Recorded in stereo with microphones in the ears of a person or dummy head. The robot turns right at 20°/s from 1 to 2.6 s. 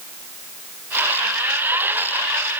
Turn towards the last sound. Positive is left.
No sound to turn to.